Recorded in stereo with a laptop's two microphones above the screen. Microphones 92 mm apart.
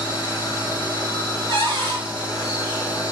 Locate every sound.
0.0 s a machine running: 45° left (ahead or behind), 1.5 m
1.5 s a cupboard door: 60° right (ahead or behind), 1.2 m